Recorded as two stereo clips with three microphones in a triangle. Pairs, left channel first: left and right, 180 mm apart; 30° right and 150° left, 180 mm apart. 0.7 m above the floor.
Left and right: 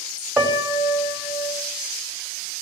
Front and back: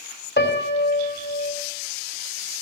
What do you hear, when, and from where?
0.4 s a piano: 10° right, 3.5 m